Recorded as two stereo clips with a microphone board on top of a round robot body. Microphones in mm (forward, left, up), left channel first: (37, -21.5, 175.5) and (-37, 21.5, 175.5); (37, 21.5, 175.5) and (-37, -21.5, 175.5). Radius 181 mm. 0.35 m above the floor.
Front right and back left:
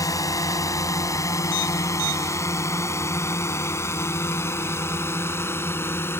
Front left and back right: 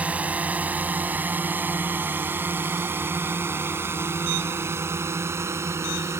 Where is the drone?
75° right; by 6.2 s 90° right.